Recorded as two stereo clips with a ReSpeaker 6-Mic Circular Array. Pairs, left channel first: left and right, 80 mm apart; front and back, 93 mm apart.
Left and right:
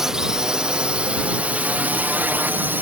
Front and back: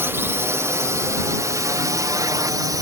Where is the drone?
165° right; by 2.8 s 150° right.